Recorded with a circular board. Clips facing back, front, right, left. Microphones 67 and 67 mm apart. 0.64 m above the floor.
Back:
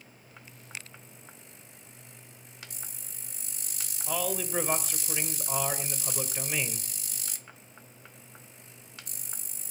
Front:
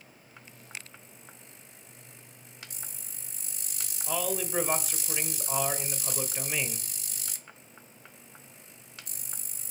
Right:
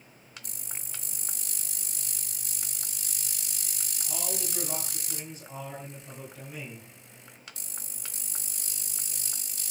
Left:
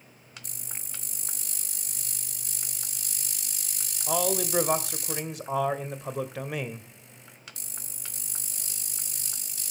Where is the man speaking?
90° left, 2 m.